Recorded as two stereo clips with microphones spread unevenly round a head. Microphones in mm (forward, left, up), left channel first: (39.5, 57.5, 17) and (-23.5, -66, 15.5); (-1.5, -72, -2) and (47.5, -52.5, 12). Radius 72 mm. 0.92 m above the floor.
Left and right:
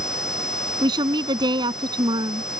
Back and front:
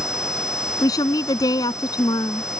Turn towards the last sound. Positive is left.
turn(degrees=180)